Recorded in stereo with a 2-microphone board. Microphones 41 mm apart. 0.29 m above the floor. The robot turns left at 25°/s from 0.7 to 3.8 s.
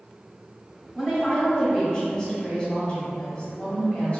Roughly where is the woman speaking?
Behind.